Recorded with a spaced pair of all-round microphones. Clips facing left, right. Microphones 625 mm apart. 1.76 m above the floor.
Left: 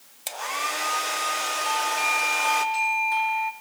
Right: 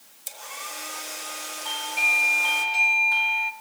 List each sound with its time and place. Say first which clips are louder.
0.3 s a hair dryer: left 9 dB; 80° left, 1.5 m
1.6 s a doorbell: left 6 dB; 15° right (ahead or behind), 1.2 m